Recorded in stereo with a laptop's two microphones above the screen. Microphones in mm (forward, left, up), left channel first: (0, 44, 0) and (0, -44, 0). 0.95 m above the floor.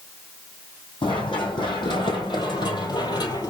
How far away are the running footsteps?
About 3 m.